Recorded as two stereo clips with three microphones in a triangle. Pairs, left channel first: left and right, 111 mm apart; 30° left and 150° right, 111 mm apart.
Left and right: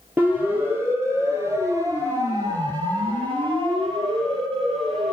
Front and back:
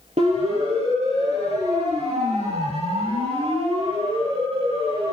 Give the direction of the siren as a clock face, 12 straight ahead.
5 o'clock.